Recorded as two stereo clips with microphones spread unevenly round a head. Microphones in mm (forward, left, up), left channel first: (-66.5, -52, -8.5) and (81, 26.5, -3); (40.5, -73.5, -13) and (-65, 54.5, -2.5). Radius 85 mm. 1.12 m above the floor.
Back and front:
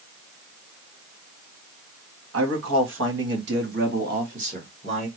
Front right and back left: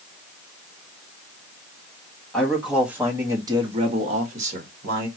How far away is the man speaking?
About 1.5 m.